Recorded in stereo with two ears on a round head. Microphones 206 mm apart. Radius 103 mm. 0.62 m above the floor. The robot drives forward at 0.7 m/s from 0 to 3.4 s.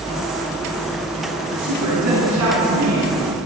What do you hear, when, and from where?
1.5 s a woman speaking: 85° right, 6.5 m; by 3.1 s 80° right, 6.5 m